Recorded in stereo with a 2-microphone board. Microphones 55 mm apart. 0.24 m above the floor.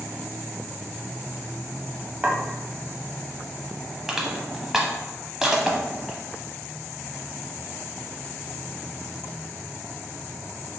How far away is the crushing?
About 0.7 m.